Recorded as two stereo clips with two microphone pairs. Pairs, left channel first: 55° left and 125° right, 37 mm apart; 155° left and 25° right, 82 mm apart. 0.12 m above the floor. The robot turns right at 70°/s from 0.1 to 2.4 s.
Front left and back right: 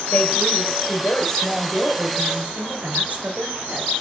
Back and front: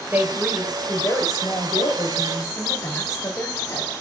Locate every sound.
0.1 s a woman speaking: 40° left, 2.5 m; by 3.9 s 160° right, 2.5 m